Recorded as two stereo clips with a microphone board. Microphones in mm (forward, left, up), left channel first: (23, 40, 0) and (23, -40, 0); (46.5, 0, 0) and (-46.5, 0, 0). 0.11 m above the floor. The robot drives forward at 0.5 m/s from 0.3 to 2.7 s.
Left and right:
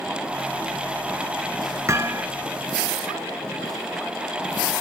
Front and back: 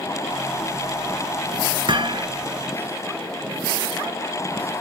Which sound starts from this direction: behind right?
Hammering, at 1.9 s.